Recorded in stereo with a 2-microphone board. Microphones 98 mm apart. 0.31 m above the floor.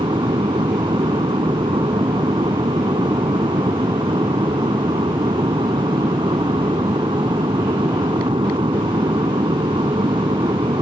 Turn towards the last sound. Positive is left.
turn(degrees=-65)  # may be behind; listen again after turning